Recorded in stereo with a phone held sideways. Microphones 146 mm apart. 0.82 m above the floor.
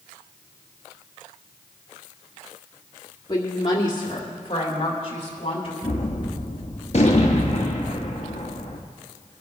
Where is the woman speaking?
30° left (ahead or behind), 2 m; by 5.7 s 40° left (ahead or behind), 3.5 m.